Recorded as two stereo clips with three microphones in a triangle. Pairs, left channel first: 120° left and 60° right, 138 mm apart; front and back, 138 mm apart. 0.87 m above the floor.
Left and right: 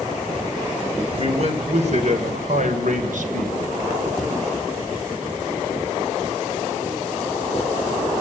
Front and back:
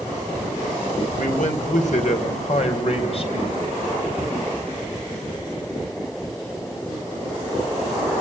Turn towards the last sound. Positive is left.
turn(degrees=-45)